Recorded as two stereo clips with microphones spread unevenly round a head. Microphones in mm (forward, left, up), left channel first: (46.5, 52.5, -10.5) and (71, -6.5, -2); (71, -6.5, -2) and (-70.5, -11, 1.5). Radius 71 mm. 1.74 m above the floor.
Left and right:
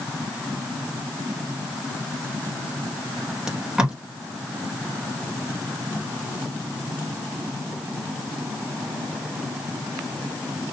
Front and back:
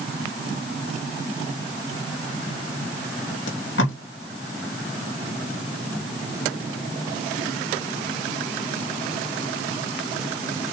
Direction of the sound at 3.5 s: 10° left.